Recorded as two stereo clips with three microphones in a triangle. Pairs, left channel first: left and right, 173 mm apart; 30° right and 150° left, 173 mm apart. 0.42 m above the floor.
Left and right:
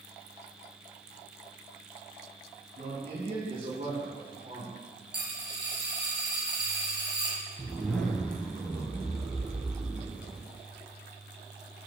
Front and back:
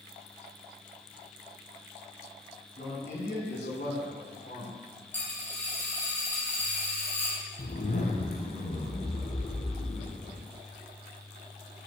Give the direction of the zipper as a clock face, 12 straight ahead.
12 o'clock.